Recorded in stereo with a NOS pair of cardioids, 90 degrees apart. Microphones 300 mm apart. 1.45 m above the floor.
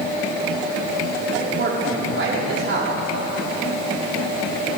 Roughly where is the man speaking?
Ahead right.